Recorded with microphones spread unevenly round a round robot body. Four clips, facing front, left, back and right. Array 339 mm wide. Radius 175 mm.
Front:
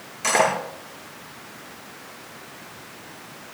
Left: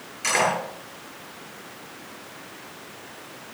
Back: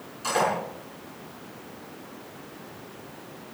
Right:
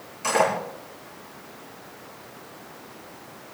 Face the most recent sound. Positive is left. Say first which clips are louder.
# right 2 dB, front 4 dB
turn(degrees=-20)